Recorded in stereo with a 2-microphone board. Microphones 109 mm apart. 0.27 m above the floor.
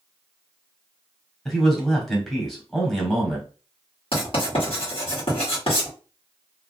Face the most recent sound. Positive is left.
turn(degrees=60)  # may be behind; listen again after turning